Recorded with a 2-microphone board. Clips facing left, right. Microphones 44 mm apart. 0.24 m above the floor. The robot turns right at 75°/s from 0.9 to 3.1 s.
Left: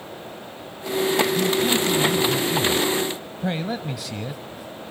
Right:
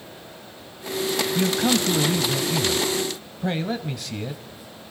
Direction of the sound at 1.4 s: 125° right.